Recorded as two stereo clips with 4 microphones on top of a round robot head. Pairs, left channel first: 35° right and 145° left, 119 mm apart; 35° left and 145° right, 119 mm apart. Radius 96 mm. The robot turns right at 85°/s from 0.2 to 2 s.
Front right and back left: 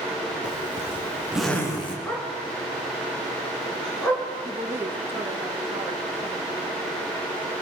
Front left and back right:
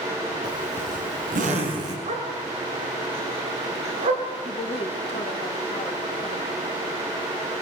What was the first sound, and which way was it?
A zipper, 155° left.